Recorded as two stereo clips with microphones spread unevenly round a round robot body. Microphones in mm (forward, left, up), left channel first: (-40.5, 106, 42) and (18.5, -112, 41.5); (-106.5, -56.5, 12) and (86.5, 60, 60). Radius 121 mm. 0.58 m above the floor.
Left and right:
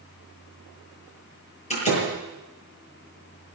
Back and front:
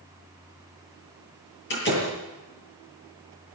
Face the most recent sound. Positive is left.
turn(degrees=170)